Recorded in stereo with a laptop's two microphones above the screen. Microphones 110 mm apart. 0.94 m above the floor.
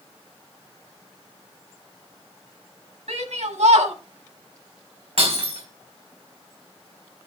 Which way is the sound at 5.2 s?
65° right (ahead or behind).